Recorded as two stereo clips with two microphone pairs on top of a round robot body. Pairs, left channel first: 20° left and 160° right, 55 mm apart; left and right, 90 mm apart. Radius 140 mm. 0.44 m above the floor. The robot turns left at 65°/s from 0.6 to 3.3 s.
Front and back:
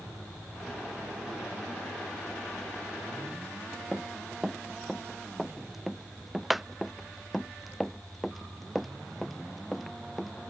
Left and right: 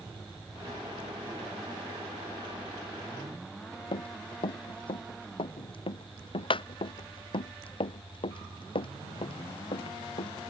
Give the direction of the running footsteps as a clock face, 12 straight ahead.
8 o'clock.